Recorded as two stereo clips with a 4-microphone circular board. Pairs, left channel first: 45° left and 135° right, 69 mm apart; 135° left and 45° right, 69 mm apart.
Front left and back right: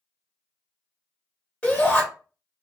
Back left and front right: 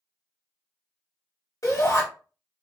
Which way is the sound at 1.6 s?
115° left.